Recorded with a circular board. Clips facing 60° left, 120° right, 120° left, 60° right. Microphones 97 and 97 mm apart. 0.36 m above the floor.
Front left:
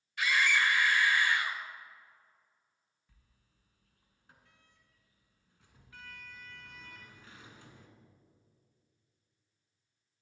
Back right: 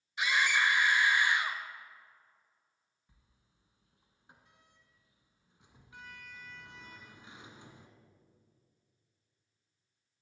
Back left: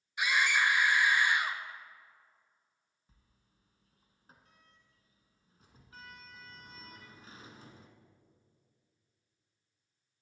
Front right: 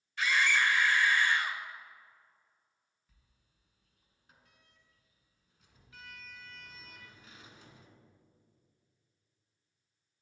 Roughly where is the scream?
Behind.